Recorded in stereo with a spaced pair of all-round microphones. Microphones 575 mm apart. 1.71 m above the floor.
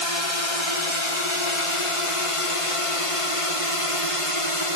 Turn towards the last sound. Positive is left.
turn(degrees=60)  # may be behind; listen again after turning